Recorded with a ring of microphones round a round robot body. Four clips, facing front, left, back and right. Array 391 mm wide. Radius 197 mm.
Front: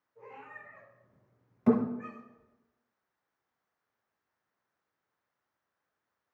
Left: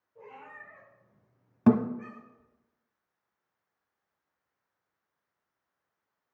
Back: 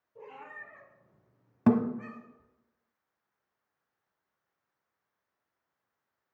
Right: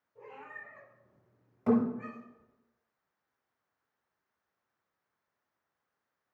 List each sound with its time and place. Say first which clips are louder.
0.1 s a cat meowing: even, back 2 dB; straight behind, 4.5 m; by 2.5 s 175° right, 6 m
1.7 s a thud: left 4 dB, back 1 dB; 130° left, 1.1 m